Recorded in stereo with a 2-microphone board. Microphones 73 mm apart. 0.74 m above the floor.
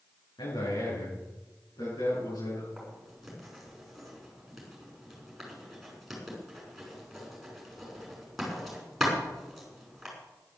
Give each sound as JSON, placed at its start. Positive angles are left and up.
{"t": 0.4, "sound": "a man speaking", "side_deg": 85, "distance_m": 7.5}
{"t": 2.8, "sound": "writing", "side_deg": 0, "distance_m": 5.5}